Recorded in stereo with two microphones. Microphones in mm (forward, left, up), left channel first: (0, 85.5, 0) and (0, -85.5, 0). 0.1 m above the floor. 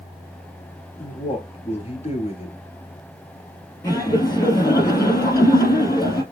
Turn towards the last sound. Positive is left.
turn(degrees=20)  # may be behind; listen again after turning